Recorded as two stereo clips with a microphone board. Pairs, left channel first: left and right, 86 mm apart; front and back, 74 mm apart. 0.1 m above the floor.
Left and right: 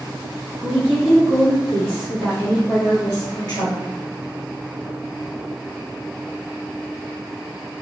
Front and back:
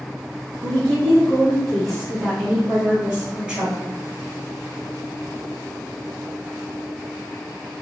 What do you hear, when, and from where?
0.6 s a woman speaking: 30° right, 1.2 m; by 3.9 s 120° left, 1.7 m